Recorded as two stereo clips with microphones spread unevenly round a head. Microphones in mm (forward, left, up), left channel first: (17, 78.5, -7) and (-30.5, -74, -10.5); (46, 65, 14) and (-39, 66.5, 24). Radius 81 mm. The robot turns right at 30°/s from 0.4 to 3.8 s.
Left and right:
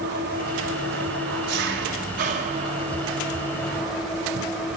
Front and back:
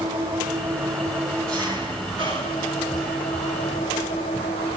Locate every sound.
0.0 s an engine running: 120° right, 4 m; by 4.8 s 20° right, 4 m